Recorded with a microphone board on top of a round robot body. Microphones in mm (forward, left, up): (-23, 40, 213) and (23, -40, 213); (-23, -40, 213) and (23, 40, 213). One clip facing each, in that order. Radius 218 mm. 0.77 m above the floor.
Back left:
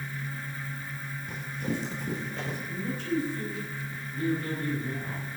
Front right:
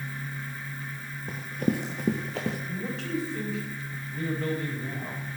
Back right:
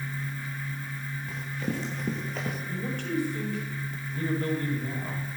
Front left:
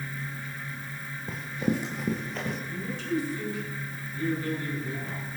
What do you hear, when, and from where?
1.3 s running footsteps: 5° right, 1.1 m; by 2.6 s 35° right, 1.4 m
2.7 s a man speaking: 80° right, 5 m